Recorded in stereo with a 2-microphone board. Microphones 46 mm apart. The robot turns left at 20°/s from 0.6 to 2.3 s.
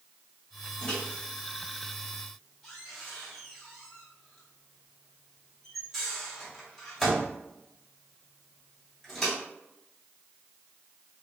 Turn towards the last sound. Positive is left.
turn(degrees=0)  # may be behind; listen again after turning